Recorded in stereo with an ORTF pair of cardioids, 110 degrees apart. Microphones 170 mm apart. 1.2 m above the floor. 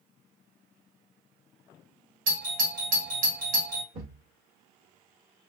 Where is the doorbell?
55° right, 1.5 m.